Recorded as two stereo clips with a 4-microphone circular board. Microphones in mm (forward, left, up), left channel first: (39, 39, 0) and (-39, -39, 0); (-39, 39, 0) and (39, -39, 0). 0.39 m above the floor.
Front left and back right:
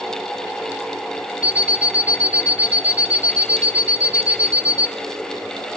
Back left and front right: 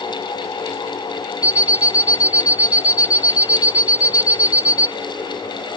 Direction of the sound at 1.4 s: 15° right.